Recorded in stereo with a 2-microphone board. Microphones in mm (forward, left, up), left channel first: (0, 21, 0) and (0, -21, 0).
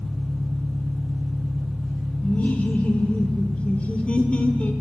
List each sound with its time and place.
0.0 s an engine running: centre (ahead or behind), 5 m
2.2 s laughter: 35° left (ahead or behind), 0.9 m